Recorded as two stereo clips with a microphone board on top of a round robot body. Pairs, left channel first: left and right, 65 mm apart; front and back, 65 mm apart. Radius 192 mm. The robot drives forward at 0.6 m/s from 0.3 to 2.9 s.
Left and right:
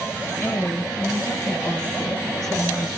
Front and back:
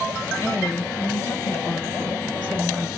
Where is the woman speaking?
30° left, 2 m; by 2.9 s 80° left, 1.2 m.